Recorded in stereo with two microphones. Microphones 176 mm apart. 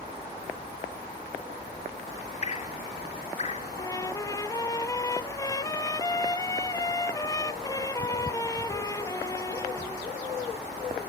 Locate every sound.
2.4 s dripping: 40° left (ahead or behind), 0.9 m
3.8 s a trumpet: 20° left (ahead or behind), 0.6 m